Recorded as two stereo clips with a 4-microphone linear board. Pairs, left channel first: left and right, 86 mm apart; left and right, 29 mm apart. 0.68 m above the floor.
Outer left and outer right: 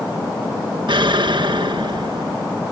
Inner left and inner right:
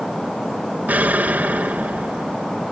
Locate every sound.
0.9 s an explosion: 70° right (ahead or behind), 0.7 m